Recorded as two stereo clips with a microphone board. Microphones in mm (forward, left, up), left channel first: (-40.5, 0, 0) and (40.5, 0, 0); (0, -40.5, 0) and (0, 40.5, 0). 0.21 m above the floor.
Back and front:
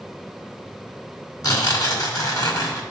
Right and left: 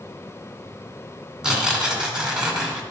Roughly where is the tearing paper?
Behind.